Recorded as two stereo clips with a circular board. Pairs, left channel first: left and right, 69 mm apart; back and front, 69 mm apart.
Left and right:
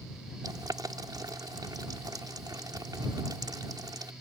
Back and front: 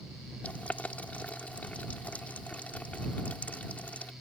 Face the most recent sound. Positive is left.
turn(degrees=-110)